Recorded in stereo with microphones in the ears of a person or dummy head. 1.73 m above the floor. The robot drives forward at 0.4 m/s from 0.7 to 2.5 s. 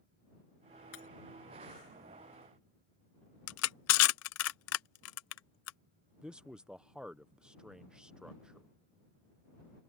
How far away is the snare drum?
I don't hear a snare drum.